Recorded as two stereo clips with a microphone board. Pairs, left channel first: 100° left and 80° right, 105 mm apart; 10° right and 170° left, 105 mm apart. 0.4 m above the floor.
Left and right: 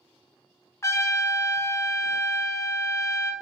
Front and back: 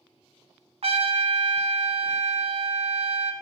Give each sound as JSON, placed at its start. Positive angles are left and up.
{"t": 0.8, "sound": "a trumpet", "azimuth_deg": 160, "distance_m": 0.6}